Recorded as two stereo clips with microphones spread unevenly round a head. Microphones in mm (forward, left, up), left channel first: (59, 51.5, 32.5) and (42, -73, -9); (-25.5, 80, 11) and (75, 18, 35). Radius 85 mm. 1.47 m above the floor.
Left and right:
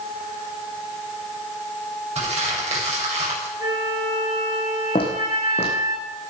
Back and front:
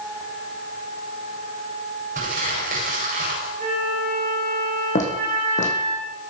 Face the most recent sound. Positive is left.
turn(degrees=125)